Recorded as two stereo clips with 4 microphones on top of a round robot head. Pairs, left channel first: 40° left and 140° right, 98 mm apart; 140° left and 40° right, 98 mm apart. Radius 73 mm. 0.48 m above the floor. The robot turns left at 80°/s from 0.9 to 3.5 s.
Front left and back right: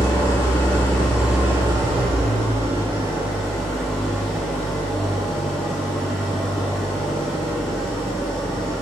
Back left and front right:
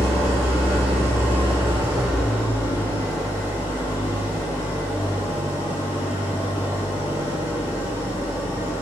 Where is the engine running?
20° right, 3 m; by 8.8 s 130° left, 3 m.